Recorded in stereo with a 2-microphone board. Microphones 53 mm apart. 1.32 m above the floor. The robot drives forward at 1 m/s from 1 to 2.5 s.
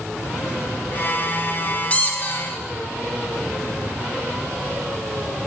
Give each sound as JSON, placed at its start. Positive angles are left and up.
{"t": 1.9, "sound": "a squeak", "side_deg": 30, "distance_m": 0.8}